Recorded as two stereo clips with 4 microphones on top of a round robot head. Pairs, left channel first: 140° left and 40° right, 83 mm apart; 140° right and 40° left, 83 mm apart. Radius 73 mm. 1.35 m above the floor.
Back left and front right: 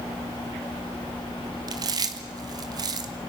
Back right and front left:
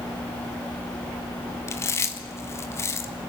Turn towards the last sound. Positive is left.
turn(degrees=-80)